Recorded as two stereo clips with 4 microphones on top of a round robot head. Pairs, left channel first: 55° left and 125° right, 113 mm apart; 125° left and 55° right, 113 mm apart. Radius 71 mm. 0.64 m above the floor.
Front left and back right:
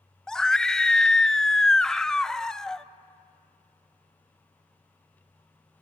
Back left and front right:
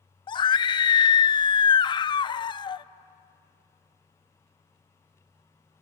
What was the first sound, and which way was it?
A scream, 135° left.